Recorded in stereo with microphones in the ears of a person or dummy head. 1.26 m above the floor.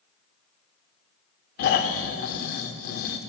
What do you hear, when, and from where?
1.6 s snoring: 50° left (ahead or behind), 1.2 m